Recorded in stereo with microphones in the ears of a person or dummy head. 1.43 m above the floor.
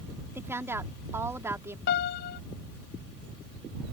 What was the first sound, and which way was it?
A woman speaking, 15° right (ahead or behind).